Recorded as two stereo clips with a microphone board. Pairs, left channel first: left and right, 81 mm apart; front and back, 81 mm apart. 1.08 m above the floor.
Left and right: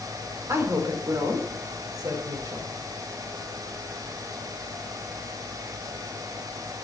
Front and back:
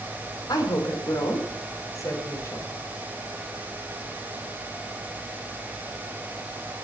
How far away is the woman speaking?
About 3 m.